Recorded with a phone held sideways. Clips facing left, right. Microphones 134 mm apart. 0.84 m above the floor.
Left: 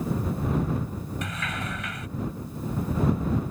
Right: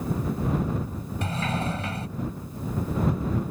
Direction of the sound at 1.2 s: 35° right (ahead or behind).